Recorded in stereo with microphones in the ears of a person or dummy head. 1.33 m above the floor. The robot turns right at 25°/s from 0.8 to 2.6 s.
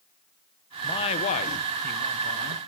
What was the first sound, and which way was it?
A man speaking, 25° left.